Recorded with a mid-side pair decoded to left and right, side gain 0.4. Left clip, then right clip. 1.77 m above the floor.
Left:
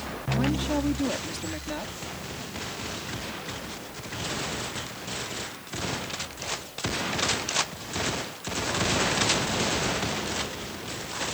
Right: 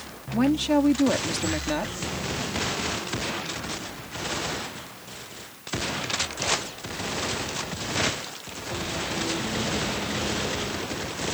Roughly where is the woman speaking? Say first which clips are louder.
Right 5 dB; ahead right.